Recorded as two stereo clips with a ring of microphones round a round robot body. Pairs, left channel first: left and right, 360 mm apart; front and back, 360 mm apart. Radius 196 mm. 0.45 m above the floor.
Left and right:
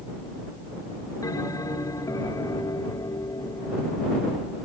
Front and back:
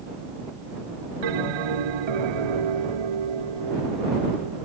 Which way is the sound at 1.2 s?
170° left.